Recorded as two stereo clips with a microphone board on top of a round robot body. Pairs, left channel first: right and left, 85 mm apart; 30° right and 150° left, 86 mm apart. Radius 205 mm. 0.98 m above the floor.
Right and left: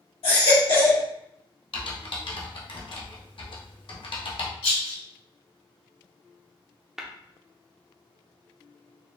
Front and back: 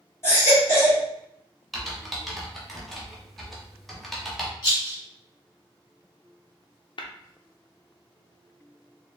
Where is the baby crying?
90° right, 2 m.